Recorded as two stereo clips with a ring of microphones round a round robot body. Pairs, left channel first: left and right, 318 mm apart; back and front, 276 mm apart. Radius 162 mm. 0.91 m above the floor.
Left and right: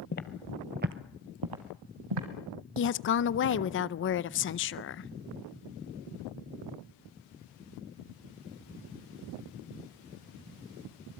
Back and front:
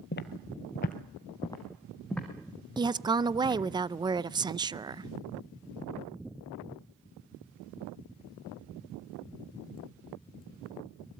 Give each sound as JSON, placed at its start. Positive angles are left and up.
{"t": 0.1, "sound": "footsteps", "azimuth_deg": 140, "distance_m": 1.2}
{"t": 2.8, "sound": "a woman speaking", "azimuth_deg": 65, "distance_m": 0.6}